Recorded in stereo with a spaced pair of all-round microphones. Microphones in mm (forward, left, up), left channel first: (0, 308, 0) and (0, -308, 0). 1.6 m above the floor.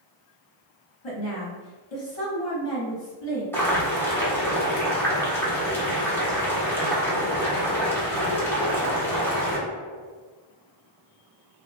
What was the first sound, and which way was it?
A woman speaking, 60° left (ahead or behind).